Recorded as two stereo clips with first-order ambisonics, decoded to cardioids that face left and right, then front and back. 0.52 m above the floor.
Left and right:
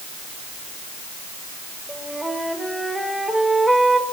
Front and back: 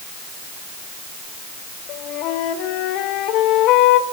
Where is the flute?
5° right, 1.7 m.